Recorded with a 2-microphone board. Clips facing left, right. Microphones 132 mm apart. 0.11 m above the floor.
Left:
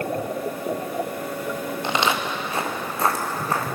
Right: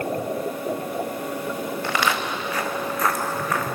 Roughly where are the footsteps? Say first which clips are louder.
Left 2 dB; left.